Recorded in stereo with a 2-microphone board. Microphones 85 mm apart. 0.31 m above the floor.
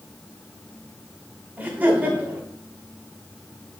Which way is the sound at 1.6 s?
25° right (ahead or behind).